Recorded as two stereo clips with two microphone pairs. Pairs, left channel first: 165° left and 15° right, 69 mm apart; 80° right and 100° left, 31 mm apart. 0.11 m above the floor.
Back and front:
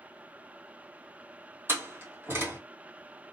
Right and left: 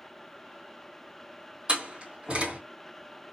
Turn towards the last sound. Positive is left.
turn(degrees=40)